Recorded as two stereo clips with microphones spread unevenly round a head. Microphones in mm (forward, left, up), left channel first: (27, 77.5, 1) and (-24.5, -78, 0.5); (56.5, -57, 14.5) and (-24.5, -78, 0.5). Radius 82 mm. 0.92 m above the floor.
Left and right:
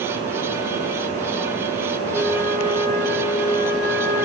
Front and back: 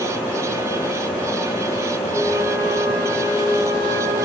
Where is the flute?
100° left, 4.5 m.